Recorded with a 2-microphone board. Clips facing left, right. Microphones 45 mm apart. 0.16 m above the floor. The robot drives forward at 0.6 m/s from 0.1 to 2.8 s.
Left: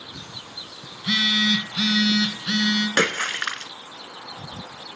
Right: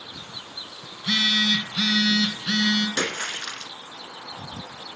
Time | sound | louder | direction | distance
0.9 | a phone buzzing | left 1 dB | 5° left (ahead or behind) | 1.3 m
3.0 | a splash | left 6 dB | 60° left (ahead or behind) | 0.7 m